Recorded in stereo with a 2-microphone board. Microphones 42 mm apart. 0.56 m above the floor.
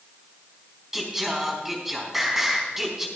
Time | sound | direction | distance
0.9 | singing | 10° right (ahead or behind) | 3.5 m